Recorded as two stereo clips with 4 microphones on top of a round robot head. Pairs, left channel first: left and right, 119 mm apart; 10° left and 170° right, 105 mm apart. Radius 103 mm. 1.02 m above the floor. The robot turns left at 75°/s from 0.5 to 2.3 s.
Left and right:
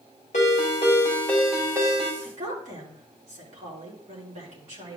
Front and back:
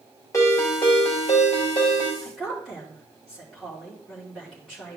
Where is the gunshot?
No gunshot in this recording.